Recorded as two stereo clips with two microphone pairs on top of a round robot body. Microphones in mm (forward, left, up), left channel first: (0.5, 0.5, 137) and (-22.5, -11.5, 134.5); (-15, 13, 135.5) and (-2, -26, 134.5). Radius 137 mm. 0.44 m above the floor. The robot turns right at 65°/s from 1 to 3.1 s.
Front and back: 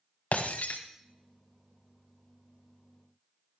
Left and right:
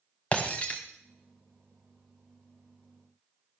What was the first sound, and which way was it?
Breaking glass, 50° left.